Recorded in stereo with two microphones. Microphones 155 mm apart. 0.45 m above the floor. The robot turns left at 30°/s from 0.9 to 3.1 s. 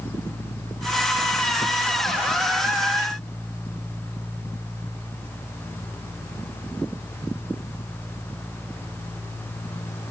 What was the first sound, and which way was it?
Only background noise.